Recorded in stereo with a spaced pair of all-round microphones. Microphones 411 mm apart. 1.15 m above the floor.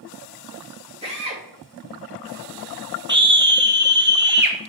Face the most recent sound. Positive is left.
turn(degrees=-25)  # may be behind; listen again after turning